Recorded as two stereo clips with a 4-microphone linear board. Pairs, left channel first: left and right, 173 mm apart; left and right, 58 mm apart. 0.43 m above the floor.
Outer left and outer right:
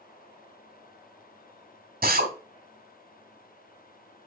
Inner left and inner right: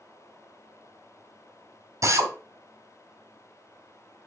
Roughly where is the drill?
Right.